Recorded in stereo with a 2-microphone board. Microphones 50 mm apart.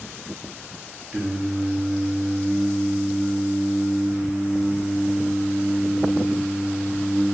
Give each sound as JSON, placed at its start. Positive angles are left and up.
{"t": 1.1, "sound": "singing", "side_deg": -30, "distance_m": 0.5}